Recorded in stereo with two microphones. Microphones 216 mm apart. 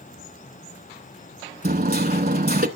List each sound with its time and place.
1.6 s hammering: 45° right (ahead or behind), 0.9 m